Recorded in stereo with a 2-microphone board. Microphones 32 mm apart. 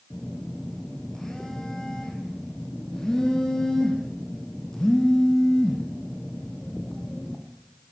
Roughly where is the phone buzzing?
Centre.